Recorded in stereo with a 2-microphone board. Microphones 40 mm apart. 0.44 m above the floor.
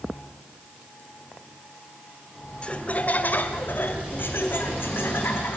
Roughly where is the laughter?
Left.